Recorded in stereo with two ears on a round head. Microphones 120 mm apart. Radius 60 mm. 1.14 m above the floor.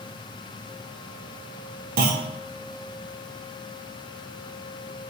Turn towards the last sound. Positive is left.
turn(degrees=-80)